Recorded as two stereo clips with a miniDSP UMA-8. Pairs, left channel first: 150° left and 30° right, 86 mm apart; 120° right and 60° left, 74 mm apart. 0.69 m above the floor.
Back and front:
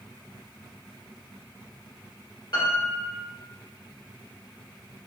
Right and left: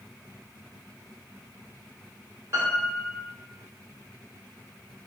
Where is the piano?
110° left, 1.1 m.